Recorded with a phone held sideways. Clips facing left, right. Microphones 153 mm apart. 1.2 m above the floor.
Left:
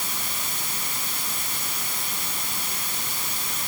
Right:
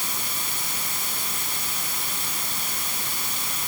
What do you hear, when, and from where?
Only background noise.